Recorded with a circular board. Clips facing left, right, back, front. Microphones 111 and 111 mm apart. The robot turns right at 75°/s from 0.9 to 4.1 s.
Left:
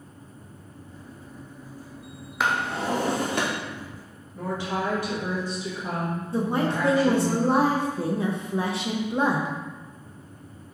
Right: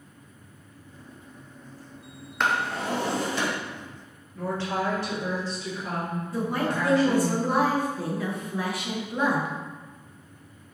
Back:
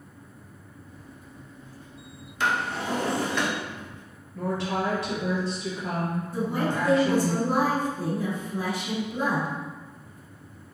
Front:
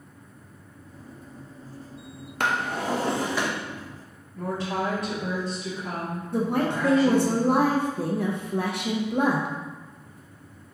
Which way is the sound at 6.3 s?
25° left.